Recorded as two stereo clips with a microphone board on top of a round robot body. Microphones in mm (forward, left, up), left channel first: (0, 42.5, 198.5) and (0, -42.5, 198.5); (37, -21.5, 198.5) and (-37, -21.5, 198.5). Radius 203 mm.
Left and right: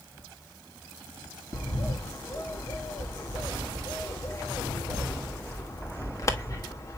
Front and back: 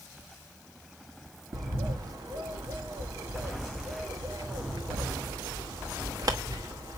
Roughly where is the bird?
Behind left.